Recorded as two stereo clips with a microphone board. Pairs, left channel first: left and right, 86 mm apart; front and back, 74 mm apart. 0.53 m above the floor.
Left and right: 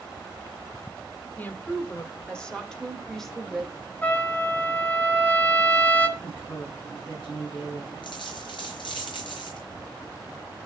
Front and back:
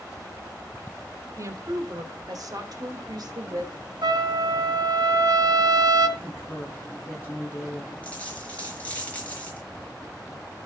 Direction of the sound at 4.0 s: 160° left.